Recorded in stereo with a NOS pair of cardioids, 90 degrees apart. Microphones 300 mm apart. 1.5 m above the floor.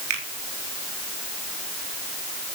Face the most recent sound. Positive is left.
turn(degrees=-65)